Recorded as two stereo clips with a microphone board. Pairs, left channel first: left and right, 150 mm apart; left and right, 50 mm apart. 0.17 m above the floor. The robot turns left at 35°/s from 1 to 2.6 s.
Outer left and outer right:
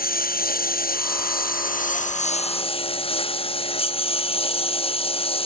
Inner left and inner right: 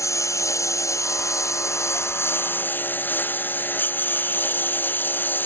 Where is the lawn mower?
95° left; by 5.5 s 40° left.